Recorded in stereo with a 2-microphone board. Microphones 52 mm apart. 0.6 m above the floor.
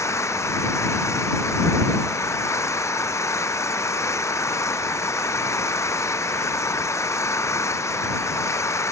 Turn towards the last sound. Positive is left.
turn(degrees=70)  # may be behind; listen again after turning